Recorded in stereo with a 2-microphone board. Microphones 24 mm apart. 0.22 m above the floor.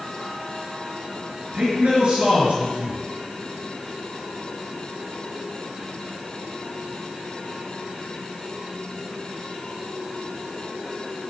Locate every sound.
1.5 s a man speaking: 50° right (ahead or behind), 4 m